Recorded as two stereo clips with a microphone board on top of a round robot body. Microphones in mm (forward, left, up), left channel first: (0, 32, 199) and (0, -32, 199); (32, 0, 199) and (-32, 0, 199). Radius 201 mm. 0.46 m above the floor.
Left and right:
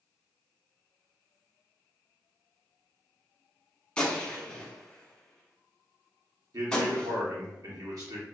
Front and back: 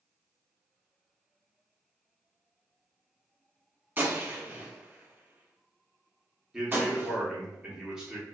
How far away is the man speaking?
About 1.3 m.